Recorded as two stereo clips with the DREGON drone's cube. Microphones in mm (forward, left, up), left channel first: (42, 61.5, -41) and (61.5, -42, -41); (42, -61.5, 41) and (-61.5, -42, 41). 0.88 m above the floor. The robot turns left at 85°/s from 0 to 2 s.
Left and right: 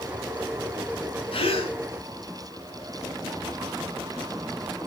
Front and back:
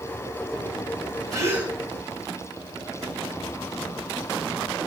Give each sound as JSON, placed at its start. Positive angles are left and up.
{"t": 1.3, "sound": "a gasp", "azimuth_deg": 120, "distance_m": 1.9}